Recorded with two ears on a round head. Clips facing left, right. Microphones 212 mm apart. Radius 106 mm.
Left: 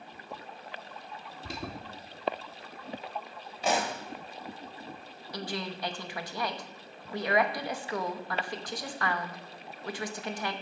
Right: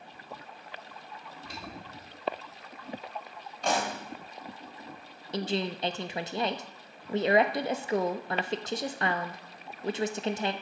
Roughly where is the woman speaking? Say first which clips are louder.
Right 6 dB; right.